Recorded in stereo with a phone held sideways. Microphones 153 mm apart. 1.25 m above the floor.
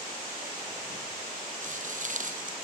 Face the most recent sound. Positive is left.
turn(degrees=-60)  # may be behind; listen again after turning